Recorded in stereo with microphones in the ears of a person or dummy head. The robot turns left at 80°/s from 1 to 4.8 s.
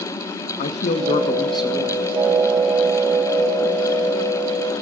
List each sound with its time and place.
0.6 s a man speaking: 45° left, 0.8 m; by 2.0 s 35° right, 0.8 m